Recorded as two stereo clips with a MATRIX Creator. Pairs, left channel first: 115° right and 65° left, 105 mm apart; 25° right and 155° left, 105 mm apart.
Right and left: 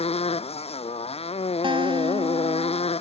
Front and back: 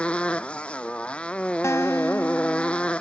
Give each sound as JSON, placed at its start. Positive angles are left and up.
{"t": 0.0, "sound": "a motorcycle", "azimuth_deg": -100}
{"t": 1.6, "sound": "a guitar", "azimuth_deg": 40}